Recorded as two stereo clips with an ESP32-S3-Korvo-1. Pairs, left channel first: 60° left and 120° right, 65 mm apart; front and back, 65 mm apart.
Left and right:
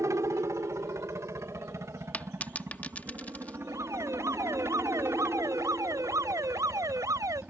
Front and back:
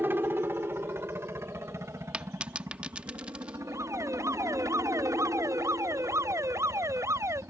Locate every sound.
0.0 s a helicopter: 135° right; by 7.5 s 175° right
2.1 s a dropped coin: 115° left
3.7 s an alarm: 145° right